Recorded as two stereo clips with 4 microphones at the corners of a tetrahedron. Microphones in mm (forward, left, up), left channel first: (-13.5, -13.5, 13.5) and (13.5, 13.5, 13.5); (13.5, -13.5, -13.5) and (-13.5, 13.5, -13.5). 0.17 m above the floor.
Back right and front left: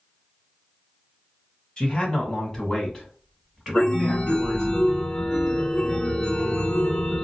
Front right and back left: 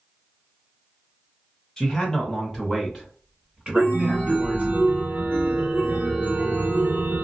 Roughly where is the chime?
Behind.